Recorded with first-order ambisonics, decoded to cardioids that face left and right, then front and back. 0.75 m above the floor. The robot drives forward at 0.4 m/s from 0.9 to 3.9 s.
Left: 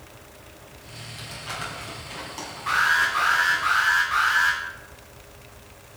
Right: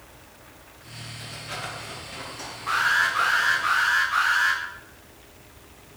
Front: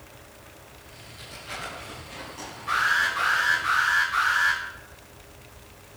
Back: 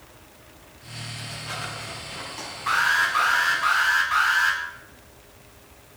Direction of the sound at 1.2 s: 110° left.